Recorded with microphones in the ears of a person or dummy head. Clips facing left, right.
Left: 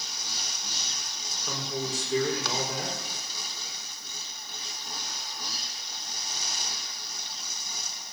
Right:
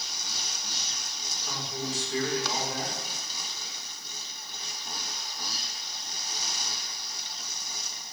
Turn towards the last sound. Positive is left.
turn(degrees=80)